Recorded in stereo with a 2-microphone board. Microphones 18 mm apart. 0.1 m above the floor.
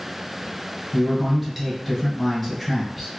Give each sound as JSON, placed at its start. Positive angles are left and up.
{"t": 0.9, "sound": "a man speaking", "side_deg": -5, "distance_m": 1.4}